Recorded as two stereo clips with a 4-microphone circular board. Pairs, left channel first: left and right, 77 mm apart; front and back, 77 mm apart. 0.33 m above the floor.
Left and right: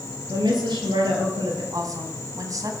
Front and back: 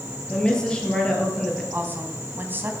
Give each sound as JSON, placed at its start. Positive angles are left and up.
{"t": 0.3, "sound": "a woman speaking", "azimuth_deg": -80, "distance_m": 5.5}
{"t": 1.7, "sound": "a woman speaking", "azimuth_deg": -120, "distance_m": 2.5}